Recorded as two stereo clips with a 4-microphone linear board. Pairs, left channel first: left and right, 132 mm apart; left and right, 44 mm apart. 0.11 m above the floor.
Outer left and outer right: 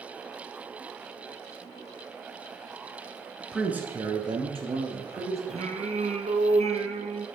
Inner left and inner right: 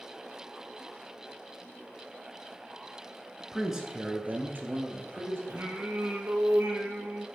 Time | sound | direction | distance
3.4 | a man speaking | 5° left (ahead or behind) | 1.4 m
5.5 | singing | 60° right (ahead or behind) | 1.2 m